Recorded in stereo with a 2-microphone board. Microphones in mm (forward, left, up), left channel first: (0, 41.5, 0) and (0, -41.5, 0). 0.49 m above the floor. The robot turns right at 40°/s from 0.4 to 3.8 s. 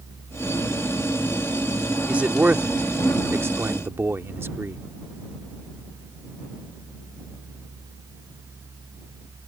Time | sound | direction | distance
2.1 | a man speaking | 15° right (ahead or behind) | ?